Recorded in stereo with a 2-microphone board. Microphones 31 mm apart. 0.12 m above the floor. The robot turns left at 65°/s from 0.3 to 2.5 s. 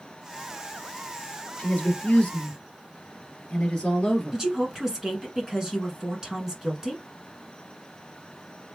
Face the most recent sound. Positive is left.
turn(degrees=-20)  # may be behind; listen again after turning